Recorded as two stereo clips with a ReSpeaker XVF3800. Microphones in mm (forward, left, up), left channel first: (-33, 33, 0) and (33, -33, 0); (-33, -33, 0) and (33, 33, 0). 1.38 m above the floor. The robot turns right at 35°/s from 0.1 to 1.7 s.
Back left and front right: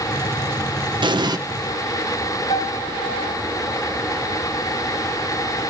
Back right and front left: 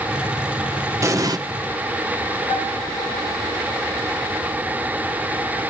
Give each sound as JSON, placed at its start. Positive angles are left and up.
{"t": 1.0, "sound": "an explosion", "azimuth_deg": -15, "distance_m": 1.1}
{"t": 2.5, "sound": "a piano", "azimuth_deg": 160, "distance_m": 9.5}